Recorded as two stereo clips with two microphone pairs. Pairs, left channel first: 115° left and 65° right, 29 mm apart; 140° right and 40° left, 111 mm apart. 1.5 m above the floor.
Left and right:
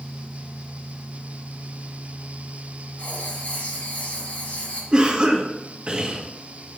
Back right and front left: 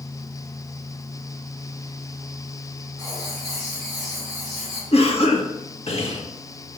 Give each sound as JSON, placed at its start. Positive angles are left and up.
{"t": 3.0, "sound": "writing", "azimuth_deg": 130, "distance_m": 3.5}
{"t": 4.9, "sound": "a cough", "azimuth_deg": -120, "distance_m": 1.4}